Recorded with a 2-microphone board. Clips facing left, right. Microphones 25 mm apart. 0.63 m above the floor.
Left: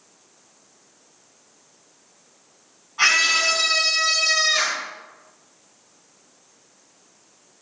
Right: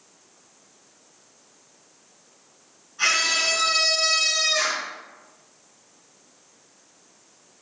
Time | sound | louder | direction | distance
3.0 | a scream | left 4 dB | 65° left (ahead or behind) | 5 m